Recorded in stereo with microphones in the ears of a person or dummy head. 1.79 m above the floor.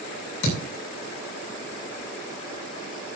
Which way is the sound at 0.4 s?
75° left (ahead or behind).